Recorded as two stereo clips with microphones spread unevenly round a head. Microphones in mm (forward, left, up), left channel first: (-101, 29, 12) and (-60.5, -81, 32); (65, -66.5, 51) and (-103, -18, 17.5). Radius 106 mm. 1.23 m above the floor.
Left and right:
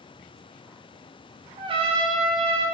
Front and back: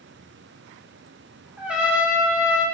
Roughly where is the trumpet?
Right.